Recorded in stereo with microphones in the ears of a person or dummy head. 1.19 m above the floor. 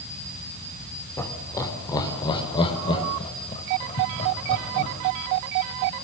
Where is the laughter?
20° left (ahead or behind), 4.5 m; by 4.9 s 45° left (ahead or behind), 8 m.